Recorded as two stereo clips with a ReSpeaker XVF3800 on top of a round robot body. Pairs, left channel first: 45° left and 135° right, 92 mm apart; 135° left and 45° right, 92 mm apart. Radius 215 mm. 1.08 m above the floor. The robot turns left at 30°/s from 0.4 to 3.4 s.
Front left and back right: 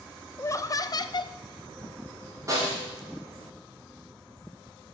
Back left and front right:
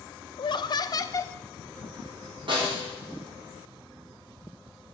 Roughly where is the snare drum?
Right.